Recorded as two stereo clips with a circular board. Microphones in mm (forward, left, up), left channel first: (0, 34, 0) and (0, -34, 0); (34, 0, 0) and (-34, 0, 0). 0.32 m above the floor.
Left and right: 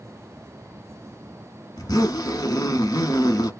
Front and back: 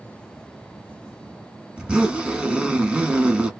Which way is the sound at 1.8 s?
105° left.